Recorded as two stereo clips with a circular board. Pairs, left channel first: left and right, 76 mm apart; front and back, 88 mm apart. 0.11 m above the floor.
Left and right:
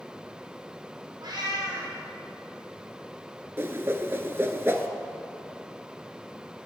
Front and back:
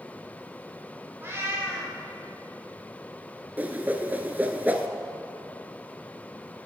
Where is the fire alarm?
No fire alarm in this recording.